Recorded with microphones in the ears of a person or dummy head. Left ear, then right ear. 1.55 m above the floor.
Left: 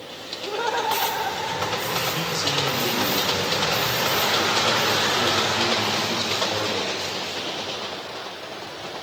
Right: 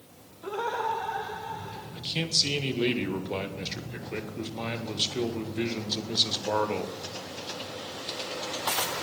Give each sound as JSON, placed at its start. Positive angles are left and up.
{"t": 0.4, "sound": "laughter", "side_deg": 0, "distance_m": 0.5}
{"t": 1.9, "sound": "a man speaking", "side_deg": -40, "distance_m": 1.3}